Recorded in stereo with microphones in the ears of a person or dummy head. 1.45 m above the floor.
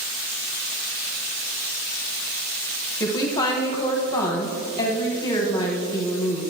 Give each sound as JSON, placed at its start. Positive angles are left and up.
{"t": 3.0, "sound": "a woman speaking", "side_deg": 25, "distance_m": 0.9}